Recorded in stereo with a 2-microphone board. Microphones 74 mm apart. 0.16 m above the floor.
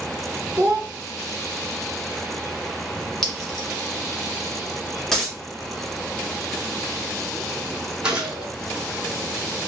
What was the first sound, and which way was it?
A child speaking, 30° left (ahead or behind).